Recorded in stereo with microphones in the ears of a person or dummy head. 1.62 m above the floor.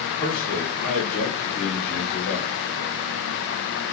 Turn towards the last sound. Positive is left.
turn(degrees=60)  # may be behind; listen again after turning